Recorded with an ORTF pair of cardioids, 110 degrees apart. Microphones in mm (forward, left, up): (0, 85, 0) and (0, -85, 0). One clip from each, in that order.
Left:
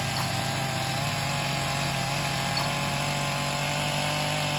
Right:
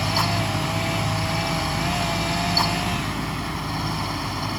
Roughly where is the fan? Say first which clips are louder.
Right 6 dB; ahead right.